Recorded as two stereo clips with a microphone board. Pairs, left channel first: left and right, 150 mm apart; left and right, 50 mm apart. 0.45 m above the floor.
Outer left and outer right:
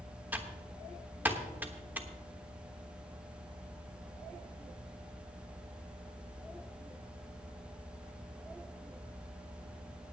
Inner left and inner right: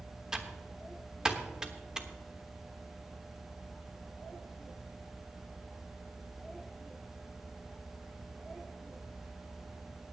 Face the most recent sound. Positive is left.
turn(degrees=-10)  # may be behind; listen again after turning